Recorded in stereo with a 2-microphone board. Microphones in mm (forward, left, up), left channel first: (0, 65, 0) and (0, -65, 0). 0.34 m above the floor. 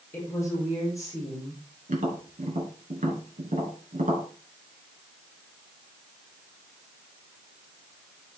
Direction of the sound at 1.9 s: 80° right.